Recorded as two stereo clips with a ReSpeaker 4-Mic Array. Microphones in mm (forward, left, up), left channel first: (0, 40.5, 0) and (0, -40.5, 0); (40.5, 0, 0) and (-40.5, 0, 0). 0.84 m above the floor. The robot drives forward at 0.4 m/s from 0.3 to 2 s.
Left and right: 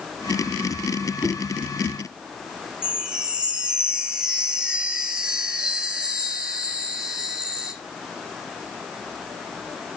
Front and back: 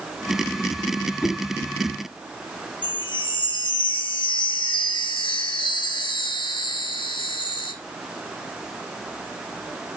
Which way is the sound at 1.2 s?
70° left.